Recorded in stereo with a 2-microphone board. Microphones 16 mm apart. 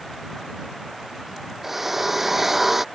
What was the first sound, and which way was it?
A drill, 10° right (ahead or behind).